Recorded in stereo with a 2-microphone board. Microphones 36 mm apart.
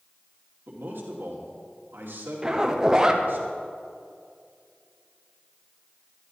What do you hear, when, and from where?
0.7 s a man speaking: 70° right (ahead or behind), 2.5 m
2.4 s a zipper: 15° right (ahead or behind), 0.8 m